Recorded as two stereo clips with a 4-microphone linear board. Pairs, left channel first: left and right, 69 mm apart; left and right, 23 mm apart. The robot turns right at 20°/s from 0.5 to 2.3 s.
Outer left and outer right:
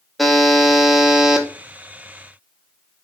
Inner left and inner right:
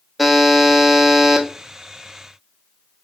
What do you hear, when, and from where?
0.2 s a buzzer: centre (ahead or behind), 0.6 m; by 1.5 s 10° right (ahead or behind), 0.6 m